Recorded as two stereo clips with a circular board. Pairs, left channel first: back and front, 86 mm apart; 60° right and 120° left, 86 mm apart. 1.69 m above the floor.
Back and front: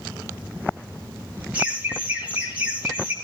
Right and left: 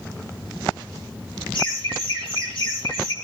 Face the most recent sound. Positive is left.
turn(degrees=-75)